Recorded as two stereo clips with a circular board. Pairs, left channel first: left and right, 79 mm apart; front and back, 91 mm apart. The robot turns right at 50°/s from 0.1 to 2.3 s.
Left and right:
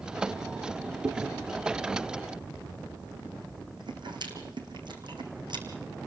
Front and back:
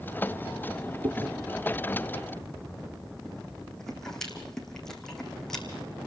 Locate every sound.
1.0 s chewing: 150° right, 3.5 m; by 5.7 s 85° right, 3.5 m